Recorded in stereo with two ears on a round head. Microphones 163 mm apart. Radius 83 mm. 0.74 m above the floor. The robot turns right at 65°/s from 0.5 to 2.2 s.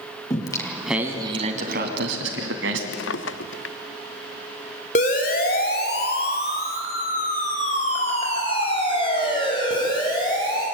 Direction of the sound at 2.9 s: 80° left.